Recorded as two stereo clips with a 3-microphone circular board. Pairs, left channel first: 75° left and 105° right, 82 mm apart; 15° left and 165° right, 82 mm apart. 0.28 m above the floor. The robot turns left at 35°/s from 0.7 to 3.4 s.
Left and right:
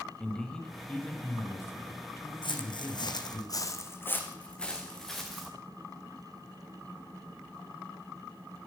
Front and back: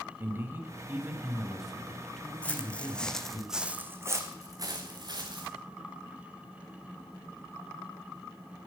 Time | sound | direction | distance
0.2 | a man speaking | 150° left | 1.1 m
2.4 | footsteps | 90° left | 1.0 m